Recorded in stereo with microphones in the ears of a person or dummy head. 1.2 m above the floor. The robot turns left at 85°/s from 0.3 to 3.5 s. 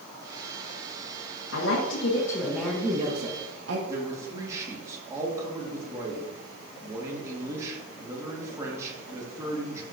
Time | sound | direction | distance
1.5 | a woman speaking | 105° left | 1.3 m
3.9 | a man speaking | 10° right (ahead or behind) | 1.8 m